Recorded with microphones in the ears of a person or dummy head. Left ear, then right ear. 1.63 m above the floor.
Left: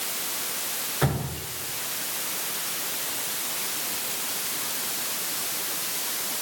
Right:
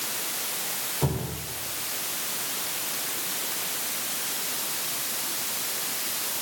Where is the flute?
I don't hear a flute.